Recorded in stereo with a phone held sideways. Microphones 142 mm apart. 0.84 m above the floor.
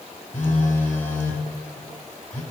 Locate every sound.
0.3 s a phone buzzing: 65° left (ahead or behind), 2.5 m